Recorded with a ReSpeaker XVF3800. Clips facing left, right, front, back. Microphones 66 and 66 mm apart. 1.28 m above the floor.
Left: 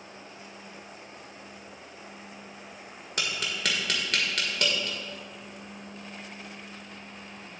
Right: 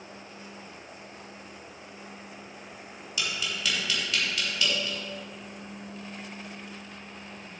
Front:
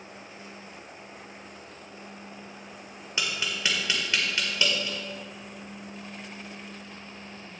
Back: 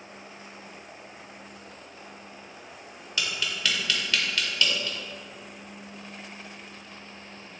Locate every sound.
3.2 s tapping: 65° left, 1.7 m